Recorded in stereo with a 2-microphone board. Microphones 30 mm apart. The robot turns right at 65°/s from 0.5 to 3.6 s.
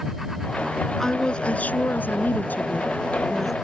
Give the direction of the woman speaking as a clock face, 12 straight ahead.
12 o'clock.